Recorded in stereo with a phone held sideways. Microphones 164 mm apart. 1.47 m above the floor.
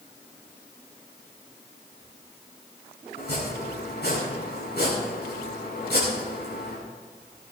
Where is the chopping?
85° left, 7 m.